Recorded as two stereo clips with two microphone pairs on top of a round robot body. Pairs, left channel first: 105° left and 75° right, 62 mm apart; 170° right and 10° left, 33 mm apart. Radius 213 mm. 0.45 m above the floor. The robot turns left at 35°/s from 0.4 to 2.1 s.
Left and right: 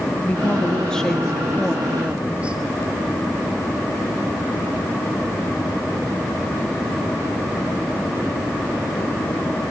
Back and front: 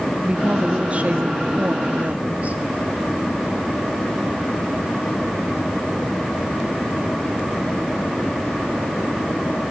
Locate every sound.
0.2 s a woman speaking: 60° left, 1.7 m; by 2.6 s straight ahead, 1.7 m